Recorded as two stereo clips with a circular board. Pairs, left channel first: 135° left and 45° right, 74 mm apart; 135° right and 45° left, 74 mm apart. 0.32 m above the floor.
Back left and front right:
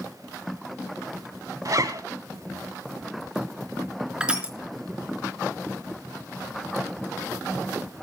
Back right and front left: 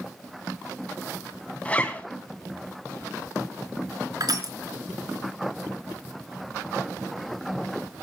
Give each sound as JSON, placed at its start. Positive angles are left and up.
{"t": 1.6, "sound": "a zipper", "azimuth_deg": -70, "distance_m": 2.5}
{"t": 4.2, "sound": "crushing", "azimuth_deg": 30, "distance_m": 3.5}